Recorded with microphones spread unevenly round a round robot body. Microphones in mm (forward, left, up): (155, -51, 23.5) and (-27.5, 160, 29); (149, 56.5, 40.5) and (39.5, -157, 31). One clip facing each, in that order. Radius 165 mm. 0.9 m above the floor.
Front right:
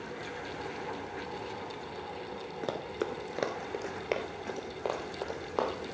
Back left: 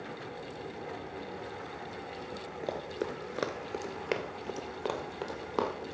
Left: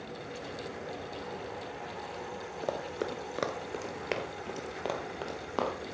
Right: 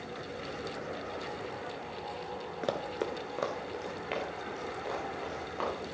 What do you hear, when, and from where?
2.6 s running footsteps: 85° right, 0.9 m; by 5.9 s 70° left, 2.5 m